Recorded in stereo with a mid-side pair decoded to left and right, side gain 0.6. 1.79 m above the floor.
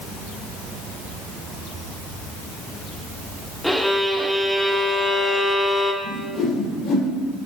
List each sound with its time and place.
3.6 s a violin: 5° left, 1.4 m
6.0 s a whoosh: 70° left, 4.5 m